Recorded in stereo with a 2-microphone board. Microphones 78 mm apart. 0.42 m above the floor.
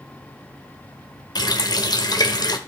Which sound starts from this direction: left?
A running tap, at 1.4 s.